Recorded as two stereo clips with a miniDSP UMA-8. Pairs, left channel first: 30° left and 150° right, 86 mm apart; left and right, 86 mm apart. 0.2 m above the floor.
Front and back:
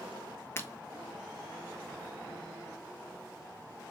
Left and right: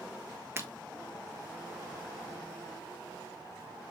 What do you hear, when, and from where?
0.6 s breaking glass: 30° right, 0.9 m